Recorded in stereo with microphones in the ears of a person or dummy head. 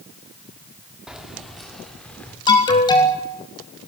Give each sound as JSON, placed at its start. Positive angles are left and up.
{"t": 1.1, "sound": "keys jangling", "side_deg": -5, "distance_m": 2.5}
{"t": 2.5, "sound": "an alarm", "side_deg": 20, "distance_m": 3.5}